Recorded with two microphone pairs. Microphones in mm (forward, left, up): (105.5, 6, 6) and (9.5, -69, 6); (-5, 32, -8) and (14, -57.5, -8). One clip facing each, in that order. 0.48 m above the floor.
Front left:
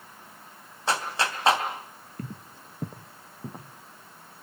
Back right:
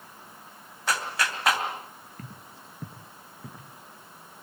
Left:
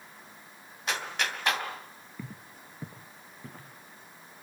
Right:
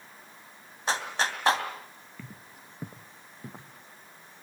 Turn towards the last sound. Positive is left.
turn(degrees=-15)